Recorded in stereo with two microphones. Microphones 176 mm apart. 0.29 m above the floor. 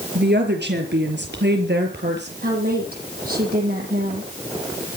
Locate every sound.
0.1 s a woman speaking: 70° right (ahead or behind), 5 m; by 2.3 s 75° right (ahead or behind), 6 m
2.4 s a woman speaking: 60° right (ahead or behind), 10 m